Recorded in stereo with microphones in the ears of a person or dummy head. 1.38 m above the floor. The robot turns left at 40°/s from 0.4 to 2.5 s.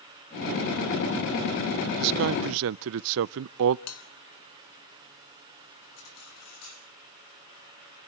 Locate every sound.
2.0 s a man speaking: 55° right (ahead or behind), 0.6 m; by 3.8 s 65° right (ahead or behind), 0.6 m
3.9 s a bell: 85° left, 3 m
6.0 s cutlery clinking: 85° left, 9.5 m